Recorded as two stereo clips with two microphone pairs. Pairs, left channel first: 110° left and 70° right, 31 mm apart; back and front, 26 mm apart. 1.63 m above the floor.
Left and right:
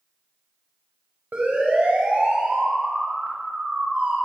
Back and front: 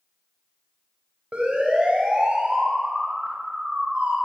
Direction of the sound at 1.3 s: 45° right.